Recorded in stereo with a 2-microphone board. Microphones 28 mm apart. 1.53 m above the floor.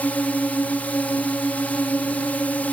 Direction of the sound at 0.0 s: 75° left (ahead or behind).